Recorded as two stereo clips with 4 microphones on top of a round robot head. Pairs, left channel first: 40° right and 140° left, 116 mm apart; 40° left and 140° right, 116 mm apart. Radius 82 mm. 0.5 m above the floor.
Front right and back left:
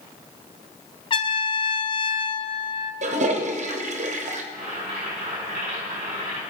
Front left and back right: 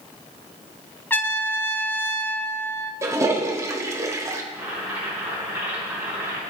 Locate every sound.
1.1 s a trumpet: 25° right, 1.1 m
3.0 s a toilet flushing: 155° left, 1.1 m
4.5 s boiling: 145° left, 6.5 m